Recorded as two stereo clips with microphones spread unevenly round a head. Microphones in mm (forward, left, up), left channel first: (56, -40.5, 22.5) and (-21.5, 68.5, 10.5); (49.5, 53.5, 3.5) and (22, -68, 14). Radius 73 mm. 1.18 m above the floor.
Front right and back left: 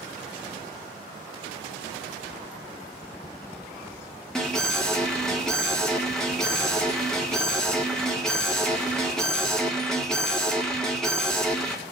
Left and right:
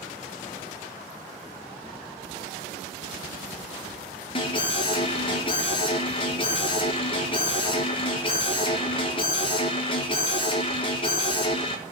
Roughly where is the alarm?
Ahead left.